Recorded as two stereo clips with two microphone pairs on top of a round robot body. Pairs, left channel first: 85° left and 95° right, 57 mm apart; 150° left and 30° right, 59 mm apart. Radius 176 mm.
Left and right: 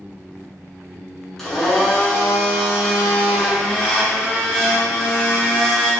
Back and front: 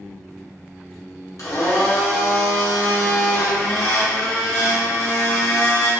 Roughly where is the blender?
Behind.